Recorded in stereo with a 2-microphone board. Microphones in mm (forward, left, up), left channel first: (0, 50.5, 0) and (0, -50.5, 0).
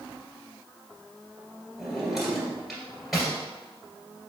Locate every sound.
1.8 s a drawer: centre (ahead or behind), 1.6 m